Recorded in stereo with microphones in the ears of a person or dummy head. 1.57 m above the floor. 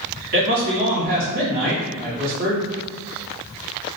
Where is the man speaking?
45° right (ahead or behind), 1.2 m.